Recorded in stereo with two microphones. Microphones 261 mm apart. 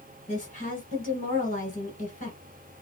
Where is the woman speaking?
30° left (ahead or behind), 1.4 m.